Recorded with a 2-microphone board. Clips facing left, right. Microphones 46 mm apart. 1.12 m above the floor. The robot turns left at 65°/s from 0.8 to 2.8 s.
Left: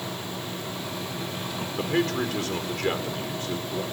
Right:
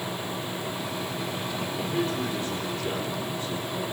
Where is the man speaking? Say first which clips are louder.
Left 4 dB; 130° left, 4 m; by 3.8 s 60° left, 4 m.